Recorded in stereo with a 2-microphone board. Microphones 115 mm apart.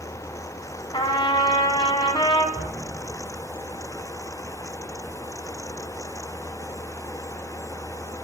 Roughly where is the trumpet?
Left.